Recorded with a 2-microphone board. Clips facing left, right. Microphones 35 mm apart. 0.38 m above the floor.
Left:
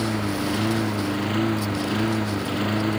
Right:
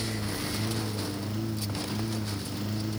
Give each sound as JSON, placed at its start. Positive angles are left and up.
{"t": 0.0, "sound": "a lawn mower", "side_deg": 75}